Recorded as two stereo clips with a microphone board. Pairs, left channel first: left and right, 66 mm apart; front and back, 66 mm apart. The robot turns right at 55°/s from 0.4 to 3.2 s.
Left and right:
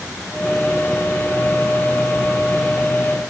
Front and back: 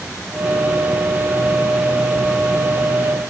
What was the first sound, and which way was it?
Only background noise.